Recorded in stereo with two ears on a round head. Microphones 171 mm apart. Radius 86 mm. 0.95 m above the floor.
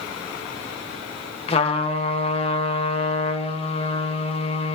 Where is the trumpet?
30° left (ahead or behind), 1.0 m.